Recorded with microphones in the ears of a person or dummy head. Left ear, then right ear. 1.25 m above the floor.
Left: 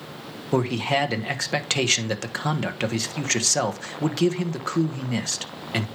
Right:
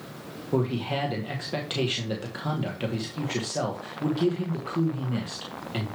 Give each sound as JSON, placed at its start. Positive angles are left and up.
{"t": 0.5, "sound": "a man speaking", "side_deg": 60, "distance_m": 1.1}